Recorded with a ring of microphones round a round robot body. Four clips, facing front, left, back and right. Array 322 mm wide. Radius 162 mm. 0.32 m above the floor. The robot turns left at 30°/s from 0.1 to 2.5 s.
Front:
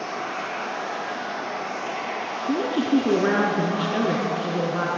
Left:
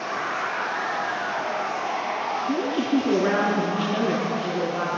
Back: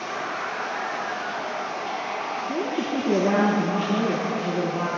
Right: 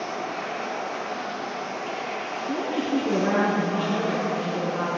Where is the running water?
75° left, 9.5 m; by 5.0 s 5° left, 9.5 m.